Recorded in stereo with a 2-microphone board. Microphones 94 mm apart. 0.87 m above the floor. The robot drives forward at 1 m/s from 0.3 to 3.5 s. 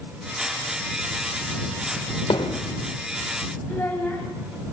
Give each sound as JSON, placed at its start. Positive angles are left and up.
{"t": 2.3, "sound": "hammering", "side_deg": 65, "distance_m": 1.8}
{"t": 3.7, "sound": "a child speaking", "side_deg": 20, "distance_m": 4.5}